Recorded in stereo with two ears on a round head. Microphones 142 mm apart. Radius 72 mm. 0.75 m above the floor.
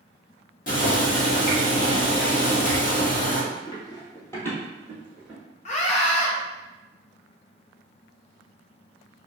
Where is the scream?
40° left (ahead or behind), 0.5 m.